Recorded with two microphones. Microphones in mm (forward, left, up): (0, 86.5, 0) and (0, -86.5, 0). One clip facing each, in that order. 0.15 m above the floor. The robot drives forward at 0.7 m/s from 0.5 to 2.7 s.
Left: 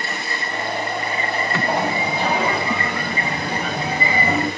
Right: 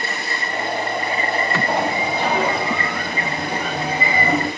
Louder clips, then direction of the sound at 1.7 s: Right 1 dB; 15° left (ahead or behind).